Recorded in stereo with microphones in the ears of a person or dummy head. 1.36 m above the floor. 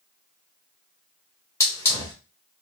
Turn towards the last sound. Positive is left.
turn(degrees=15)  # may be behind; listen again after turning